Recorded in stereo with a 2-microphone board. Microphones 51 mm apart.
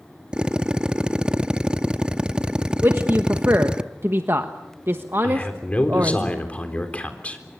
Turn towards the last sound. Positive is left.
turn(degrees=25)  # may be behind; listen again after turning